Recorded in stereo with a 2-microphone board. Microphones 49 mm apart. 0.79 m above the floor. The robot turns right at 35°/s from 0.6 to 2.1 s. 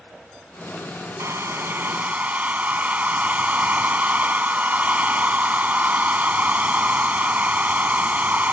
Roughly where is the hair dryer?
Right.